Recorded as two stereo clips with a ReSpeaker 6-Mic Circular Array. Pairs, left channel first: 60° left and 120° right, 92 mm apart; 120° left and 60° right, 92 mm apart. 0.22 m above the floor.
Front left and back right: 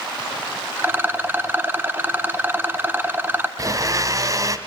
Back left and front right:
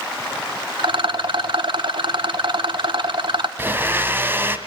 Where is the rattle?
55° right, 1.0 m.